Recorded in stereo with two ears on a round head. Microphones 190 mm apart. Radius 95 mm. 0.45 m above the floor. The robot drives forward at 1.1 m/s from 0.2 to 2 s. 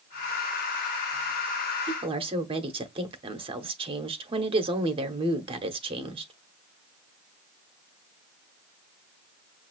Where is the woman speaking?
25° right (ahead or behind), 0.9 m.